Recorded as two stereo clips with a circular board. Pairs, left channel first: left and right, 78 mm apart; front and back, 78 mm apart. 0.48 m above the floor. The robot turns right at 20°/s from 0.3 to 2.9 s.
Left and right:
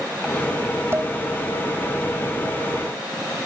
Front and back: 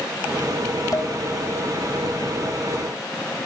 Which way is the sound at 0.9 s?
35° right.